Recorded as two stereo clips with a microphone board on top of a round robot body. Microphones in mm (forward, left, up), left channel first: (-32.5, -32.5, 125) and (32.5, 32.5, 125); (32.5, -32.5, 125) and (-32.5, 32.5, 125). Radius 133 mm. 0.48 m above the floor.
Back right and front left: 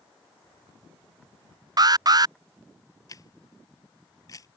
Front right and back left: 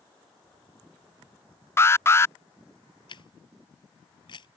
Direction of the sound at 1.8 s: 10° left.